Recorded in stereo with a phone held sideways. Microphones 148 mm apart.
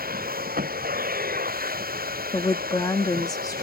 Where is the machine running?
85° right.